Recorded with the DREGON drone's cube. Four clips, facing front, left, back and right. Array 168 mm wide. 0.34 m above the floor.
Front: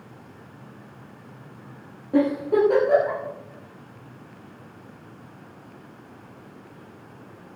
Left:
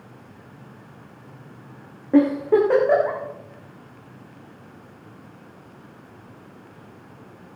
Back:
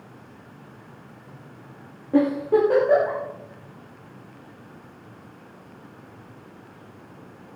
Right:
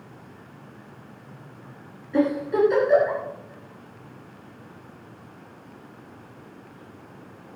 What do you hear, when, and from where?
2.1 s a giggle: 95° left, 9.5 m